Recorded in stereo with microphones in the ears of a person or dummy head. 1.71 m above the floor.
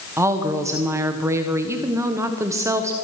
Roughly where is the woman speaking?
Centre.